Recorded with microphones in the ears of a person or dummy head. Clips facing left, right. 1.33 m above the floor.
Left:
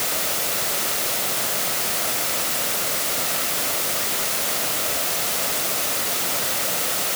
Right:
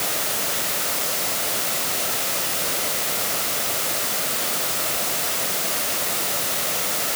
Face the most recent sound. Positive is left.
No sound to turn to.